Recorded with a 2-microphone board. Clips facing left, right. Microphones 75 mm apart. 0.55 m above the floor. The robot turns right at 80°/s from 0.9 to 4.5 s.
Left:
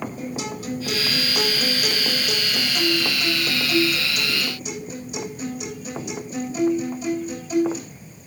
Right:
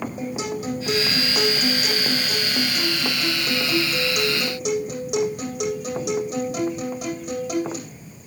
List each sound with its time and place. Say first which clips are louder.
0.2 s a guitar: right 2 dB; 20° right, 8.5 m; by 7.8 s 90° right, 8.5 m